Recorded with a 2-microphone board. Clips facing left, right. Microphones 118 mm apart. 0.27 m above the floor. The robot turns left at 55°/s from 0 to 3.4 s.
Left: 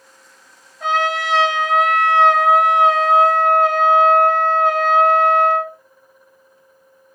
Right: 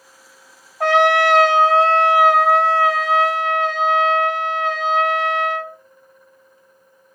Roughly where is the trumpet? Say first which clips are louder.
Right 6 dB; right.